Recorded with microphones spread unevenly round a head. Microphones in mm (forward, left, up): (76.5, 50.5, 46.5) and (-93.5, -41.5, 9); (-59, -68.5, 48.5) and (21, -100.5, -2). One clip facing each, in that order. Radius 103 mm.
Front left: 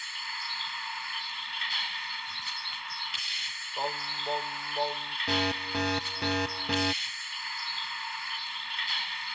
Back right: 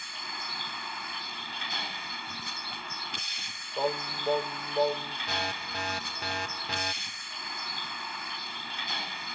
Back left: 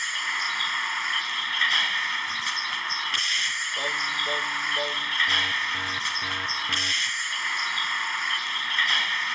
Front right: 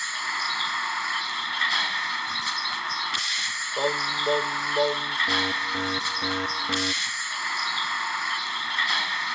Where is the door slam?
No door slam in this recording.